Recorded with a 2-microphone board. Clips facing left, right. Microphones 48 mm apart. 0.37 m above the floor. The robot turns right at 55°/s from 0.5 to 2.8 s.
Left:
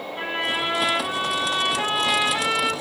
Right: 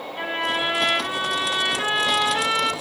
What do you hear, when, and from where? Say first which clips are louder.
0.2 s a trumpet: right 1 dB; 15° right (ahead or behind), 1.5 m; by 2.7 s 5° right (ahead or behind), 1.5 m